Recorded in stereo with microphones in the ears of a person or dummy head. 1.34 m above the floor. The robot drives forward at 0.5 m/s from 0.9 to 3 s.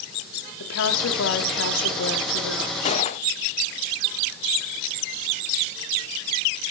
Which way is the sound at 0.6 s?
80° left.